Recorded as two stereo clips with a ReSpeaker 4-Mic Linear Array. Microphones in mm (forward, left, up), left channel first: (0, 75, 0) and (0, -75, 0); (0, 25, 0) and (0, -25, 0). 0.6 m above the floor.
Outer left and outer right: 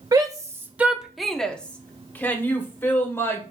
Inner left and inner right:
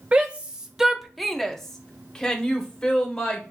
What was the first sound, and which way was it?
A shout, 25° right (ahead or behind).